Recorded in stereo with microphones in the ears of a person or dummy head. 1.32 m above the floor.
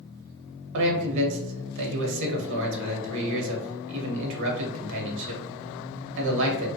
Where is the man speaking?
65° right (ahead or behind), 0.7 m.